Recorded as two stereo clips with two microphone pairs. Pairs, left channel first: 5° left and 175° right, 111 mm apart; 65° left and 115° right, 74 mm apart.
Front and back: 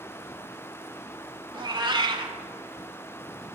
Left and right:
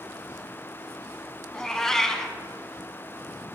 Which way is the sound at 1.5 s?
150° left.